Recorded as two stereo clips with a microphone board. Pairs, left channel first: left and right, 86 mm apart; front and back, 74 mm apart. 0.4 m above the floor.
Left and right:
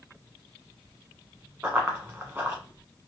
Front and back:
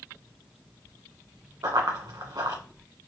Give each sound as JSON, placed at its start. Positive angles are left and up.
{"t": 1.6, "sound": "running footsteps", "azimuth_deg": -165, "distance_m": 1.5}